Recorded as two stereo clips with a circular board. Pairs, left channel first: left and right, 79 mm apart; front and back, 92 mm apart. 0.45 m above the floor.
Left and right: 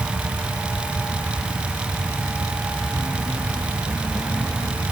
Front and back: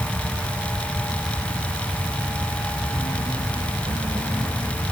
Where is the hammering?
I don't hear hammering.